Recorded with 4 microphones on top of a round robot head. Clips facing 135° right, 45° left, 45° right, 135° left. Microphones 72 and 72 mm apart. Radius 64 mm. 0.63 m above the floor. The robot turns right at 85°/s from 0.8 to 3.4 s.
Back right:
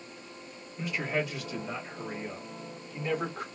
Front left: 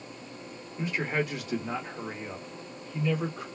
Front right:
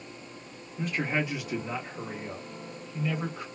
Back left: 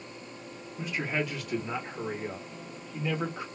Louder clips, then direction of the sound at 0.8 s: Front left 2 dB, front right 2 dB; 20° right.